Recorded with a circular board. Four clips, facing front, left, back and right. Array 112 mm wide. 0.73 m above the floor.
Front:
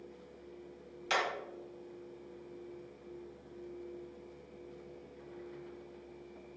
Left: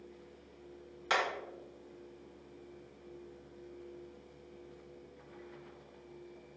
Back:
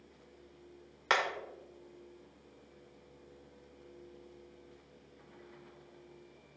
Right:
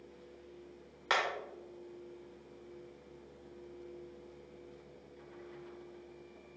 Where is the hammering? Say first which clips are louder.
Left 1 dB, back 2 dB; 165° right, 1.9 m.